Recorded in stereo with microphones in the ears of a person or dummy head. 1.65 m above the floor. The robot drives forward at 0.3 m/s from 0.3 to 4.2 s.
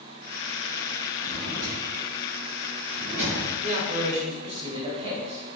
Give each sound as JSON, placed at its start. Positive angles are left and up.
{"t": 1.2, "sound": "a drawer", "side_deg": 0, "distance_m": 1.2}
{"t": 3.6, "sound": "a man speaking", "side_deg": -35, "distance_m": 0.9}